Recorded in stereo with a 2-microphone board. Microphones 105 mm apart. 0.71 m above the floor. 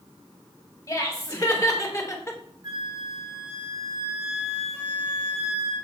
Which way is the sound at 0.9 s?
35° left (ahead or behind).